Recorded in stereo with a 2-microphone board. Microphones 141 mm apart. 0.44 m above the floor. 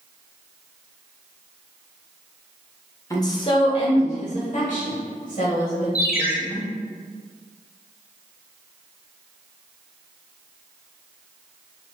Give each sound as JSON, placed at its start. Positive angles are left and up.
{"t": 3.1, "sound": "a woman speaking", "side_deg": 20, "distance_m": 1.0}
{"t": 6.0, "sound": "a ringtone", "side_deg": 70, "distance_m": 1.0}